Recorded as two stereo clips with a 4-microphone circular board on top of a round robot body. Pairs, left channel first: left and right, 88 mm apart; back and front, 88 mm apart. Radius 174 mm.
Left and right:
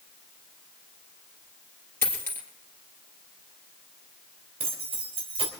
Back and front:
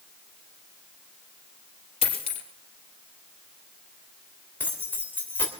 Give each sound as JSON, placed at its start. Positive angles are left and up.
{"t": 2.0, "sound": "a dropped coin", "azimuth_deg": 160, "distance_m": 3.0}
{"t": 4.6, "sound": "keys jangling", "azimuth_deg": -110, "distance_m": 3.0}